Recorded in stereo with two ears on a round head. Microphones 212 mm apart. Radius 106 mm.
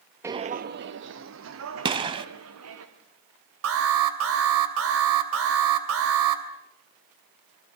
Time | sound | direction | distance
0.2 | footsteps | 10° right (ahead or behind) | 0.7 m
1.9 | a gunshot | 20° right (ahead or behind) | 1.5 m
3.6 | an alarm | 60° right (ahead or behind) | 3 m